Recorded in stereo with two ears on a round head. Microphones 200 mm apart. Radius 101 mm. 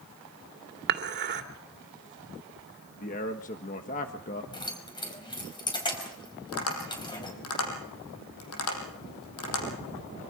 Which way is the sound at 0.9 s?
50° right (ahead or behind).